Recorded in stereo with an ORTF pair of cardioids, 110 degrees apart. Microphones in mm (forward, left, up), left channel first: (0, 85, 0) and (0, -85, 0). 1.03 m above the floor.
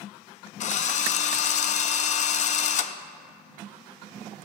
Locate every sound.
0.6 s a drill: 45° left, 0.7 m